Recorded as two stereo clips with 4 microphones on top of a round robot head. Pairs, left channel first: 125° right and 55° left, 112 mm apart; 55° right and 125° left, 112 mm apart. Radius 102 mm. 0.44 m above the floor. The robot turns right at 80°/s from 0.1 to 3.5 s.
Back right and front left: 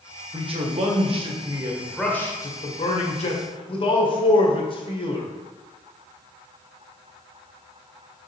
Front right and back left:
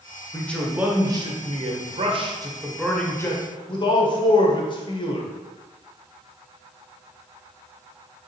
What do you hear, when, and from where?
0.3 s a man speaking: 15° left, 2.0 m; by 5.3 s 95° right, 2.0 m